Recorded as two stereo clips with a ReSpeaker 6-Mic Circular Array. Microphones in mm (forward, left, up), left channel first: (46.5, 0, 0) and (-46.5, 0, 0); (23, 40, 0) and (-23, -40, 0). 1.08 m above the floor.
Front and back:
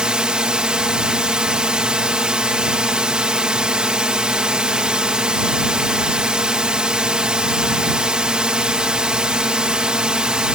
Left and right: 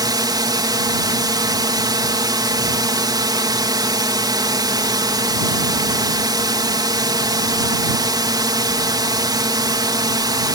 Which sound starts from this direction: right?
A drone, at 0.0 s.